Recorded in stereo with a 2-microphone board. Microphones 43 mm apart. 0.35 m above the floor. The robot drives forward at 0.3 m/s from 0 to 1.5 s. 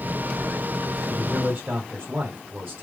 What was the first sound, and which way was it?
A man speaking, 50° right (ahead or behind).